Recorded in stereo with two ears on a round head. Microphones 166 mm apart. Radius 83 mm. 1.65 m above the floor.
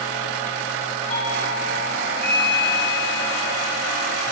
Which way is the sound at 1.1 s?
50° left (ahead or behind).